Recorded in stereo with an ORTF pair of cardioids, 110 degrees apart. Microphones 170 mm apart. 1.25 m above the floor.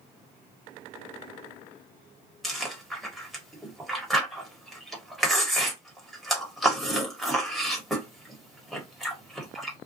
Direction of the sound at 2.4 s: Straight ahead.